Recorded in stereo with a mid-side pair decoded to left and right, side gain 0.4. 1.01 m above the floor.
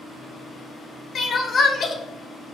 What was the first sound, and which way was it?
Crying, 50° left.